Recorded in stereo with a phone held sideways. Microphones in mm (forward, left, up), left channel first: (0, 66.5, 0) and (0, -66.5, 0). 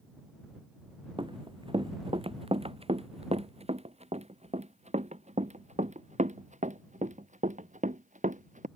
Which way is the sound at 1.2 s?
40° right (ahead or behind).